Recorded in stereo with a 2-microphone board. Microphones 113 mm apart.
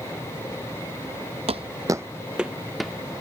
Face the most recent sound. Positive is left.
turn(degrees=0)  # may be behind; listen again after turning